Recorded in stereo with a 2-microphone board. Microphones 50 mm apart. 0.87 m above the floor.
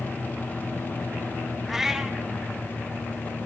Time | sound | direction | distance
1.7 | a cat meowing | 5° right (ahead or behind) | 0.7 m